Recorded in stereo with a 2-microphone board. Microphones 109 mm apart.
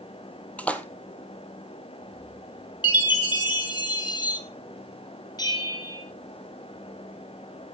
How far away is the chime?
About 2.5 m.